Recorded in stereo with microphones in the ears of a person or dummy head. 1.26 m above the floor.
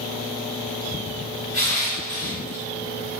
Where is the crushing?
45° right (ahead or behind), 1.5 m.